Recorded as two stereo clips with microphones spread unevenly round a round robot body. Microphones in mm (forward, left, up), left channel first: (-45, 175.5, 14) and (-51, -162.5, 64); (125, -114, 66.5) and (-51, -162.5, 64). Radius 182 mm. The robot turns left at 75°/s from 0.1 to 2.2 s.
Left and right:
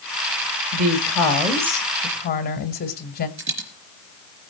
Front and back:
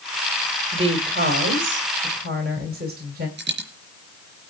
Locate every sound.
0.7 s a woman speaking: 100° right, 2.5 m; by 3.3 s 150° left, 2.5 m
3.4 s a dropped coin: 145° right, 4 m